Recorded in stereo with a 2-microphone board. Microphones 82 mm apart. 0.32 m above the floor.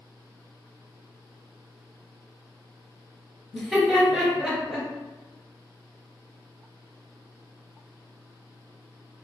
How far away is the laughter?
About 1.7 m.